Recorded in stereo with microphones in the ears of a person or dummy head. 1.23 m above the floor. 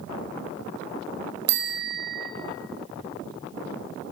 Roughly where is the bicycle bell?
Right.